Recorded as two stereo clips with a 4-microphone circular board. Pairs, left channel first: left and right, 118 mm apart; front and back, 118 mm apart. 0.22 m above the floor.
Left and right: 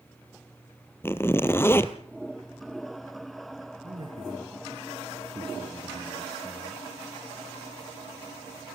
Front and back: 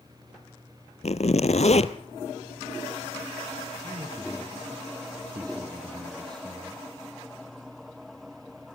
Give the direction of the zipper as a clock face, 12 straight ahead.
11 o'clock.